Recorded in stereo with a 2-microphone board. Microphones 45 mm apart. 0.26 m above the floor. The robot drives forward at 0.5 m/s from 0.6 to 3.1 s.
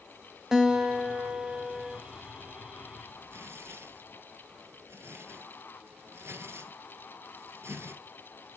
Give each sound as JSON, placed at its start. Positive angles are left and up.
{"t": 0.5, "sound": "a guitar", "side_deg": -15, "distance_m": 1.3}
{"t": 3.3, "sound": "tearing paper", "side_deg": -65, "distance_m": 2.5}